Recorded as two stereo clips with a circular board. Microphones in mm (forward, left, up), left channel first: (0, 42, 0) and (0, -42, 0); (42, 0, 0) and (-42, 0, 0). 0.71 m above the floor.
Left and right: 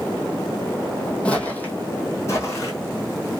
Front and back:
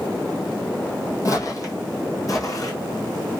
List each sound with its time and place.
1.2 s footsteps: 15° left, 0.9 m; by 3.3 s 45° left, 1.7 m